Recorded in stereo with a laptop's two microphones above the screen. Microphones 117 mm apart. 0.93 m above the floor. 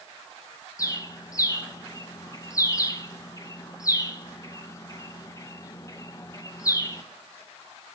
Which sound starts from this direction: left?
A bird, at 0.8 s.